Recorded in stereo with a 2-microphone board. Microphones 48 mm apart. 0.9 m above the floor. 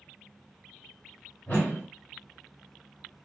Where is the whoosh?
45° left (ahead or behind), 1.0 m.